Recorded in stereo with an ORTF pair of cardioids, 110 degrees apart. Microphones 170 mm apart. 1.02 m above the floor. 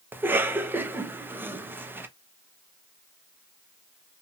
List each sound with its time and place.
0.1 s a cough: 10° right, 0.6 m